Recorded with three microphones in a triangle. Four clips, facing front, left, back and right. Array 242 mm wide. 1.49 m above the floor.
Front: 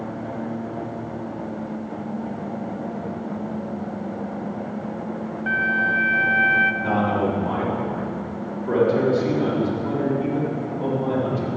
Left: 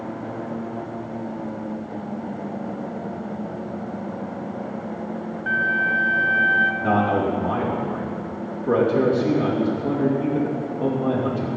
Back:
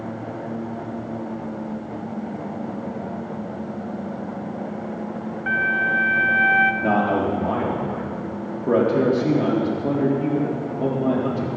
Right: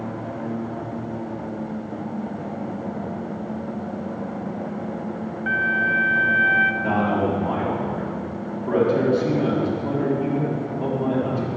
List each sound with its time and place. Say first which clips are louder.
5.5 s a flute: even, even; 150° right, 0.8 m
6.8 s a man speaking: left 1 dB, back 1 dB; 170° left, 4 m